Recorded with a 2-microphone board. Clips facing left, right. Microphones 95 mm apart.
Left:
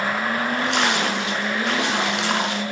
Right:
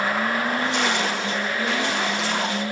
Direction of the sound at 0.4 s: 85° left.